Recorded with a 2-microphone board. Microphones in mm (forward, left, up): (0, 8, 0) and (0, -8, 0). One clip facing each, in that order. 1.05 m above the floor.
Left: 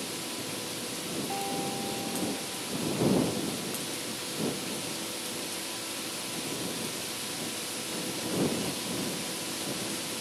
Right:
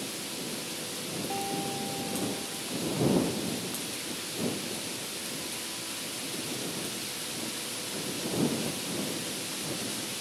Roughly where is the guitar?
Centre.